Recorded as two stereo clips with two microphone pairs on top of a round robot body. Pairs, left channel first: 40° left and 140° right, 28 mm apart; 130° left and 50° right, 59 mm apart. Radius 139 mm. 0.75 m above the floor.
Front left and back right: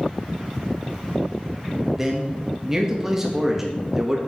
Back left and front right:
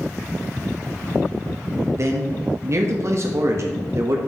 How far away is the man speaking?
About 1.5 m.